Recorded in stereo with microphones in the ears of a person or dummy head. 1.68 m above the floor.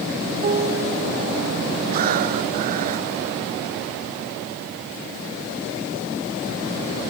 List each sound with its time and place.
0.4 s a piano: 40° right (ahead or behind)
1.9 s breathing: 50° right (ahead or behind)